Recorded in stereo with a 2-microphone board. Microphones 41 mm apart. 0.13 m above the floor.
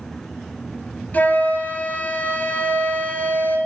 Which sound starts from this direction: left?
A flute, at 1.1 s.